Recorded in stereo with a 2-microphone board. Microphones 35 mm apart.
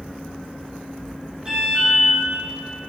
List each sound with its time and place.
1.4 s an alarm: 25° right (ahead or behind), 5.5 m